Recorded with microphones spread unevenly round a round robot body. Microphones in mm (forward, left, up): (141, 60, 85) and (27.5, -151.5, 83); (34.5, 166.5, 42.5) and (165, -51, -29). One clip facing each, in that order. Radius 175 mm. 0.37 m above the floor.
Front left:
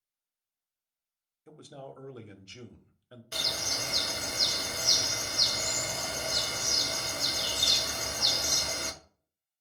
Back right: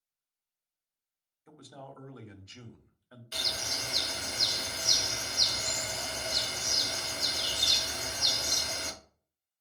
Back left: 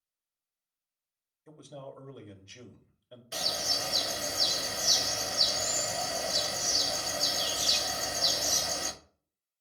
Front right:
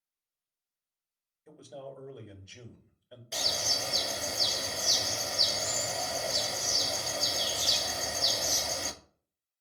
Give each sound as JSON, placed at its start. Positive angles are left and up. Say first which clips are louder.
{"t": 1.5, "sound": "a man speaking", "louder": "front left 3 dB, front right 1 dB", "azimuth_deg": 10, "distance_m": 1.0}
{"t": 3.3, "sound": "a bird", "louder": "front left 3 dB, even", "azimuth_deg": 25, "distance_m": 1.0}